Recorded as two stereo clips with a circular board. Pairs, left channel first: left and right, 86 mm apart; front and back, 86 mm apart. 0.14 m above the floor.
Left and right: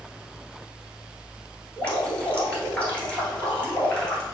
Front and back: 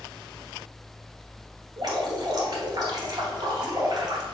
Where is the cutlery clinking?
I don't hear cutlery clinking.